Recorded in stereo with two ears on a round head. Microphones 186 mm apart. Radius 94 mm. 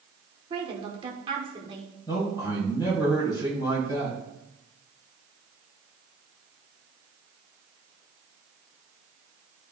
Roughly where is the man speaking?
Left.